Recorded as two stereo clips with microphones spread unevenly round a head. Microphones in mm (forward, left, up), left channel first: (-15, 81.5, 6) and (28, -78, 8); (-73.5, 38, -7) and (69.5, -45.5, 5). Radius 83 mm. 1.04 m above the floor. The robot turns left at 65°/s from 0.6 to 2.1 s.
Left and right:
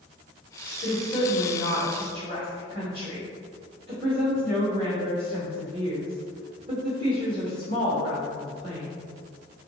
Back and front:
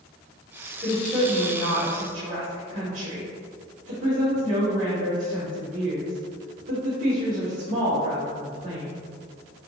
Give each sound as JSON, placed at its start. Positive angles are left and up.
{"t": 0.8, "sound": "a woman speaking", "azimuth_deg": 60, "distance_m": 1.8}